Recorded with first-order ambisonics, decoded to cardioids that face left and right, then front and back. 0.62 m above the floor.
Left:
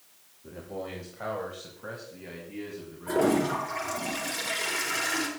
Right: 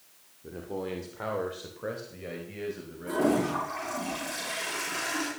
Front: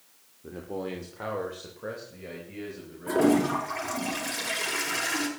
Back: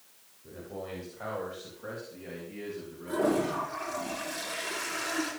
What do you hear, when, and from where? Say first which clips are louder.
0.4 s a man speaking: right 2 dB, front 5 dB; 20° right, 1.8 m; by 3.8 s 70° right, 5 m
3.1 s a toilet flushing: left 2 dB, front 4 dB; 5° left, 6 m